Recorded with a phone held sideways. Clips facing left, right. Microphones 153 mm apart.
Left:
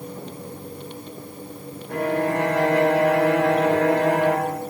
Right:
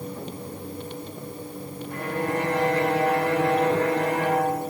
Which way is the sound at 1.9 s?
85° left.